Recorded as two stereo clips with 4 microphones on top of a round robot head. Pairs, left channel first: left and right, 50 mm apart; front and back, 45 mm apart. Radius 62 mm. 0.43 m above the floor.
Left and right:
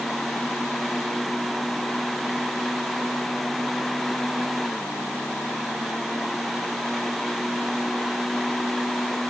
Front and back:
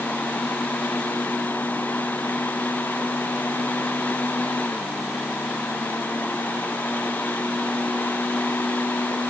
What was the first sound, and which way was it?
Only background noise.